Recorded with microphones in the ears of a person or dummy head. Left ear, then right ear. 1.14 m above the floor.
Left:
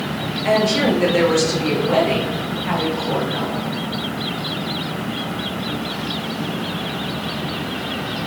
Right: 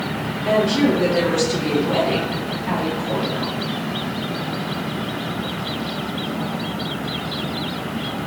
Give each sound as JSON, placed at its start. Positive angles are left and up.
{"t": 0.5, "sound": "a woman speaking", "side_deg": 60, "distance_m": 1.0}